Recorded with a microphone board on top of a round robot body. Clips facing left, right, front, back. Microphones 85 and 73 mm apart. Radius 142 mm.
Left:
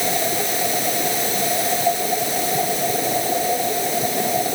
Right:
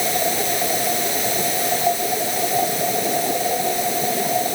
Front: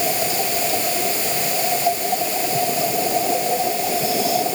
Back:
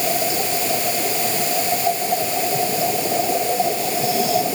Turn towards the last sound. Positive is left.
No sound to turn to.